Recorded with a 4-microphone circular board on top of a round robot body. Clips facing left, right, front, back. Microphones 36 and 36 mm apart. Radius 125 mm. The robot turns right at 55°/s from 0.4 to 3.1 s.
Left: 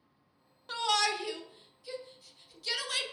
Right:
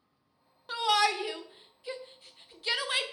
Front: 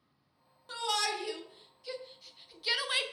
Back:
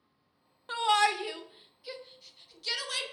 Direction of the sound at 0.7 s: 170° right.